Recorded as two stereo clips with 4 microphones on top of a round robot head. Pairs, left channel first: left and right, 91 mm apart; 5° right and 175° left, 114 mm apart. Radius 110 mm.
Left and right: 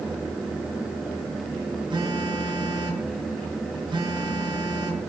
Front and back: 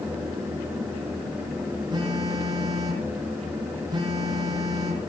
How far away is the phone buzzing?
About 5 m.